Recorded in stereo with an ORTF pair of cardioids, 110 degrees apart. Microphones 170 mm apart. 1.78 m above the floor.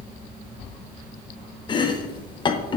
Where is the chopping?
30° left, 0.6 m.